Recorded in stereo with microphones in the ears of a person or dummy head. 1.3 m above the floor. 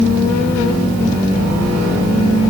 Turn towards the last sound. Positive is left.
No sound to turn to.